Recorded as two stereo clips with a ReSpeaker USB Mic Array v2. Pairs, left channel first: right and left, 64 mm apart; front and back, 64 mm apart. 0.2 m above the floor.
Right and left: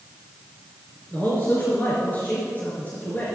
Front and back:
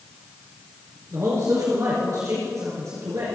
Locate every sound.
1.1 s a man speaking: 150° right, 3.5 m